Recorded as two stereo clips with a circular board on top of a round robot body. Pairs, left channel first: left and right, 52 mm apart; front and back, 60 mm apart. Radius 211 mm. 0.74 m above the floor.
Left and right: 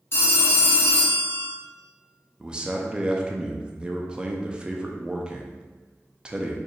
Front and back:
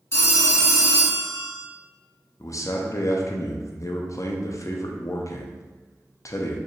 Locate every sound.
0.1 s a phone ringing: 45° left, 0.9 m
2.4 s a man speaking: 20° right, 0.6 m